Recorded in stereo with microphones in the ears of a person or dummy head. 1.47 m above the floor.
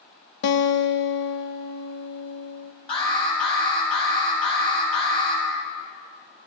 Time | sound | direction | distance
0.4 | a guitar | 65° left (ahead or behind) | 0.8 m
2.9 | an alarm | 30° left (ahead or behind) | 7.5 m